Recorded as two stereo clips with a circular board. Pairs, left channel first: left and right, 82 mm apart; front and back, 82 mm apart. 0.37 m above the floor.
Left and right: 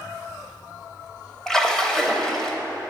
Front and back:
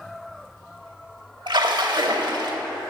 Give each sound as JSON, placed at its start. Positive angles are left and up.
{"t": 1.5, "sound": "a splash", "azimuth_deg": 170, "distance_m": 0.7}